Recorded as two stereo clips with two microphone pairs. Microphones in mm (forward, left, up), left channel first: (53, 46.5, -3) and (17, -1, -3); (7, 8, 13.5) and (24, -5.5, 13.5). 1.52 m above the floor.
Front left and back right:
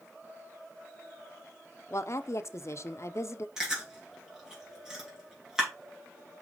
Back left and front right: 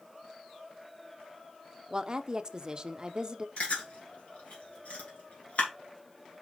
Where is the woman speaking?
15° left, 0.6 m.